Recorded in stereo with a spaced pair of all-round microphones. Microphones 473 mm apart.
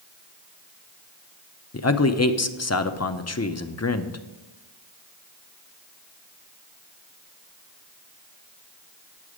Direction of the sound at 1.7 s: 35° left (ahead or behind).